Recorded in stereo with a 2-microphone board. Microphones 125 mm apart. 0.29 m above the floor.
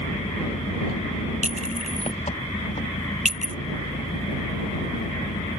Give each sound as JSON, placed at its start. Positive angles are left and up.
{"t": 0.0, "sound": "an engine running", "side_deg": 60}
{"t": 1.4, "sound": "a clink", "side_deg": -75}